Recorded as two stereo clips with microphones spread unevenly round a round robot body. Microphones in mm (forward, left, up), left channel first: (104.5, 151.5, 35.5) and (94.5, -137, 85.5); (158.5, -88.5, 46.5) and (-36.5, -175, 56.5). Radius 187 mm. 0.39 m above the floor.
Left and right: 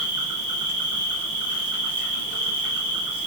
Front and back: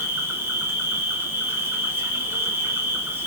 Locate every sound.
0.0 s an insect: 75° right, 1.4 m